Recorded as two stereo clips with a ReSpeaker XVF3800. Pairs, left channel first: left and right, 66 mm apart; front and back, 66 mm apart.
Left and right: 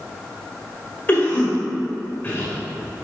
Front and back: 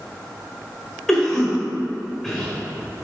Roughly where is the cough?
Left.